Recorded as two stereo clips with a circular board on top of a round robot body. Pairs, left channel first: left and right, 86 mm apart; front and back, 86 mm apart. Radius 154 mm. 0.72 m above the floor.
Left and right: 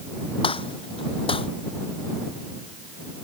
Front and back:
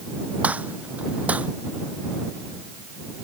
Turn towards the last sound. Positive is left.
turn(degrees=105)